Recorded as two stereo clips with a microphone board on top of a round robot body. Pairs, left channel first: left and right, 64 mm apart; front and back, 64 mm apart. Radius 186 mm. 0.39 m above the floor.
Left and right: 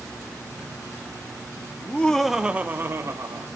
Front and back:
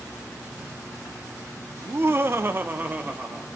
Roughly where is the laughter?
Behind left.